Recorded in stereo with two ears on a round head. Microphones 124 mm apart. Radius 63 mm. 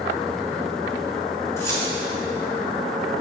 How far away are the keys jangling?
About 2.5 m.